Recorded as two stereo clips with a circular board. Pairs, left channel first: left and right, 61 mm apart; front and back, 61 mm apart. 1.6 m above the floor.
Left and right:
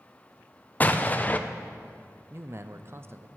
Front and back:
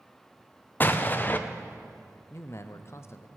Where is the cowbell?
I don't hear a cowbell.